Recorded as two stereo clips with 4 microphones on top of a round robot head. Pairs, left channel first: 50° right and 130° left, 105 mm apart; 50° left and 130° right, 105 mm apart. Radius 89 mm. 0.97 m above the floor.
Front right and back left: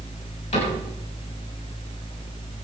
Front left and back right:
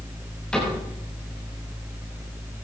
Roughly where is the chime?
No chime in this recording.